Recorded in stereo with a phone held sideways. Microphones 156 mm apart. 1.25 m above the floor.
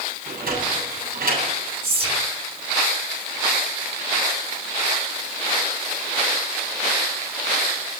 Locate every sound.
0.3 s a sliding door: 75° right (ahead or behind), 8.5 m
1.8 s whispering: 35° right (ahead or behind), 2 m